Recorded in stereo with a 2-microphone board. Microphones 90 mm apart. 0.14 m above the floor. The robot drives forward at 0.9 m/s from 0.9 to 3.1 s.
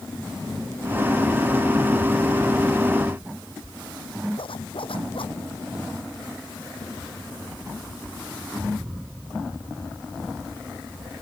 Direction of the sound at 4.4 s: 75° left (ahead or behind).